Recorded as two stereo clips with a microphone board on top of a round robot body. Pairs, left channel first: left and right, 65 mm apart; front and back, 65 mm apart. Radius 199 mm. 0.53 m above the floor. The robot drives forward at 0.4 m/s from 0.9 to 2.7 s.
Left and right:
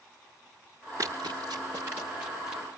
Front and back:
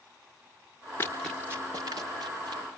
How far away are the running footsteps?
About 0.7 m.